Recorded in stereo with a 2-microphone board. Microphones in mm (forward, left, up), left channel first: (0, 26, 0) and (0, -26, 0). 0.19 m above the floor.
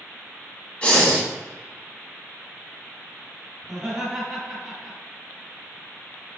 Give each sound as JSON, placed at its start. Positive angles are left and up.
{"t": 0.8, "sound": "breathing", "side_deg": 25, "distance_m": 1.5}
{"t": 3.6, "sound": "laughter", "side_deg": 0, "distance_m": 1.6}